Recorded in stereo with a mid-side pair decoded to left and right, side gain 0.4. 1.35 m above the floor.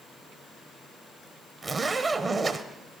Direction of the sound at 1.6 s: 40° right.